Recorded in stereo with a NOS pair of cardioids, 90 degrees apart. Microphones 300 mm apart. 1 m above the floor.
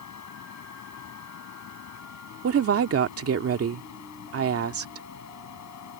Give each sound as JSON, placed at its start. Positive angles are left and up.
{"t": 0.0, "sound": "a fan", "azimuth_deg": 65}
{"t": 2.4, "sound": "a woman speaking", "azimuth_deg": -50}